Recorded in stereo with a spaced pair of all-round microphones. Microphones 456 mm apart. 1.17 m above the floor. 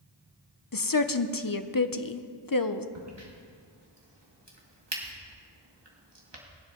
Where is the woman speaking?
50° left (ahead or behind), 0.7 m.